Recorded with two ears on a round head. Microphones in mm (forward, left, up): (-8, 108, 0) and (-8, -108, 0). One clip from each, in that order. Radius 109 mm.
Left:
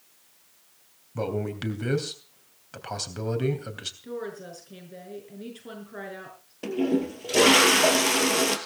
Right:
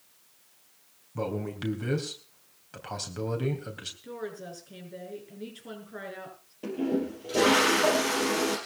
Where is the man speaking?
15° left (ahead or behind), 3 m.